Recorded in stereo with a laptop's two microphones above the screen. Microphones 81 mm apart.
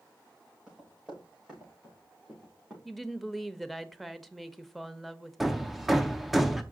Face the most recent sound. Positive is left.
turn(degrees=-5)  # may be behind; listen again after turning